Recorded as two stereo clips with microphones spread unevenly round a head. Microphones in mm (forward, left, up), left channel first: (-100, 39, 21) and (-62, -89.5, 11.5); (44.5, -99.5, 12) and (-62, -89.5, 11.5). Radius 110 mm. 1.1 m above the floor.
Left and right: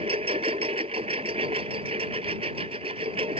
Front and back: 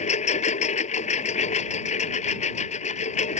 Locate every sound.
0.0 s a lawn mower: 5° right